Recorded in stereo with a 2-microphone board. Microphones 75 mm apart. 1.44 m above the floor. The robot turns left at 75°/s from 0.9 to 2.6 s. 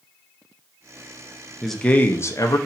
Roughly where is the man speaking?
Behind.